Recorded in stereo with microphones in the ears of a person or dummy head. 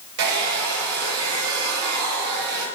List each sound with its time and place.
0.2 s a hair dryer: 55° right (ahead or behind), 5 m